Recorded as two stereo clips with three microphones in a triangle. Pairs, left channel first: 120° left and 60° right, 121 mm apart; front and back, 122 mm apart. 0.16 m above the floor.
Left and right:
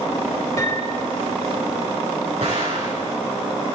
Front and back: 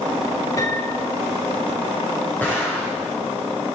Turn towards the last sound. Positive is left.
turn(degrees=-75)